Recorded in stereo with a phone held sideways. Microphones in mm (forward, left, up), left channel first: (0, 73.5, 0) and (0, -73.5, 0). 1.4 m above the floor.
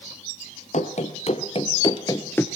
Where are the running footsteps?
60° left (ahead or behind), 2.5 m; by 2.5 s 15° left (ahead or behind), 1.4 m.